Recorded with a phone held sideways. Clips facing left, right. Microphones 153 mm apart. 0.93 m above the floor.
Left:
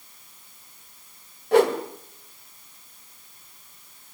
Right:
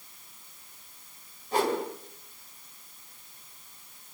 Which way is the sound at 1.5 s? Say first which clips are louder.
Left 9 dB; 70° left (ahead or behind).